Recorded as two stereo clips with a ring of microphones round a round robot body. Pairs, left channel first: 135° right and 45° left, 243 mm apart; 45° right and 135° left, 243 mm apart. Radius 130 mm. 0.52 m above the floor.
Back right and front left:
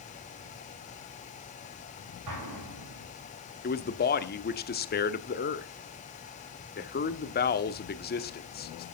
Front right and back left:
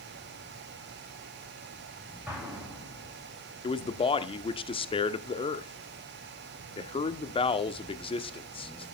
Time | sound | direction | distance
2.3 | an explosion | 50° left | 7.5 m
3.6 | a man speaking | 105° right | 1.2 m